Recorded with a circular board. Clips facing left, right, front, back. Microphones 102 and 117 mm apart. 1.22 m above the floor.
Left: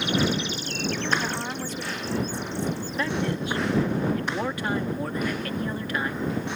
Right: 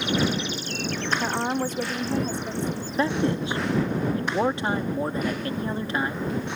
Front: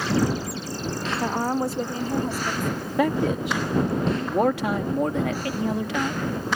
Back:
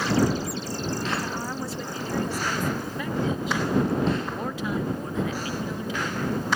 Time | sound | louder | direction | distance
1.2 | a woman speaking | right 5 dB, front 7 dB | 25° right | ?
3.0 | a man speaking | right 5 dB, front 8 dB | 25° right | ?